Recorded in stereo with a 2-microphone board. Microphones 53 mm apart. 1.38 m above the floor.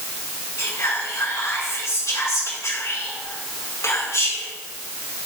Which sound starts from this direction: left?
Whispering, at 0.6 s.